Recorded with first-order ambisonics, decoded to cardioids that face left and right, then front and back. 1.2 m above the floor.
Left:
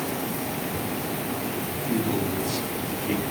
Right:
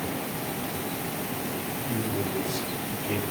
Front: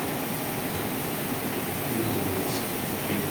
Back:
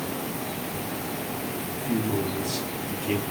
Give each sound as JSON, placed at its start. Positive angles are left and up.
{"t": 1.7, "sound": "a man speaking", "azimuth_deg": 155, "distance_m": 4.0}